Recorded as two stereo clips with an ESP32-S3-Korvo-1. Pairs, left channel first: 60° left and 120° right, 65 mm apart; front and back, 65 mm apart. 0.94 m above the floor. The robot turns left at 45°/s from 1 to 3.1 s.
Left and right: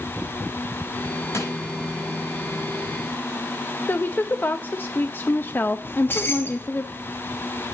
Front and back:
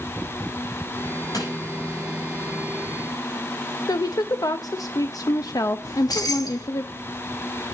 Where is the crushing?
20° left, 5.5 m; by 1.5 s 10° left, 5.5 m.